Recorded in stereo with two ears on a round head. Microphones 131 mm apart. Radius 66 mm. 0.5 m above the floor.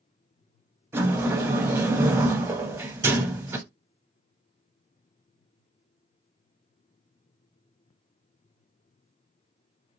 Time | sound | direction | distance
0.9 | a sliding door | 15° right (ahead or behind) | 0.7 m